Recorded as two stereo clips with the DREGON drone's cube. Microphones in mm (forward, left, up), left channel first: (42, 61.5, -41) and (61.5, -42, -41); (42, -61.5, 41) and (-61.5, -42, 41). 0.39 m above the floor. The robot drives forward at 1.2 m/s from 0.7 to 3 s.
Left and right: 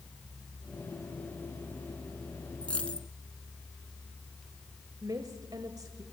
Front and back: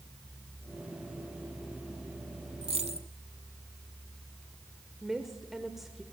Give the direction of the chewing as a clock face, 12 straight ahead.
I don't hear chewing.